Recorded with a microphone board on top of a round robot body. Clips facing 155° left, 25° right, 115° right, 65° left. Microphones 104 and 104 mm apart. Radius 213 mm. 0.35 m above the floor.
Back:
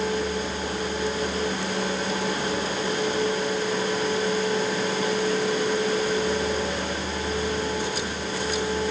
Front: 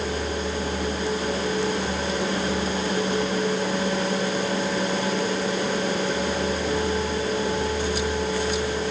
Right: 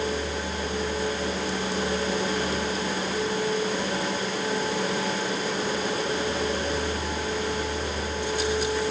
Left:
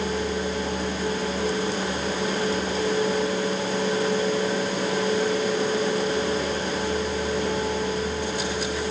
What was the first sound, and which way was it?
Only background noise.